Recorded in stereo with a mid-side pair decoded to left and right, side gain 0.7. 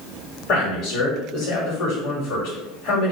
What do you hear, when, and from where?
0.5 s a man speaking: 65° left, 1.1 m